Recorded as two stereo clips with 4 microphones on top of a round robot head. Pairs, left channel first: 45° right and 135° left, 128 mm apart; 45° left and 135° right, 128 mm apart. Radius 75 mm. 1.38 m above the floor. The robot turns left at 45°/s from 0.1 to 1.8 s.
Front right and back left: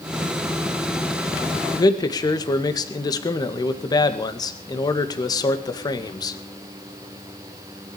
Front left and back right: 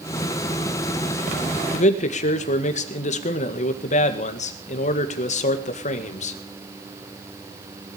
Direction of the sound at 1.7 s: 20° left.